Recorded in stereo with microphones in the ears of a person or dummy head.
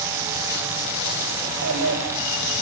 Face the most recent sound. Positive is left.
turn(degrees=-75)  # may be behind; listen again after turning